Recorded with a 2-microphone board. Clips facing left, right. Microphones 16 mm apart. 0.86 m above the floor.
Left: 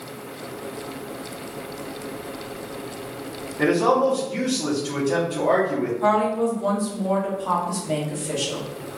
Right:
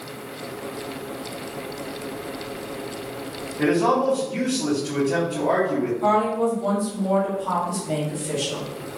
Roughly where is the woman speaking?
Left.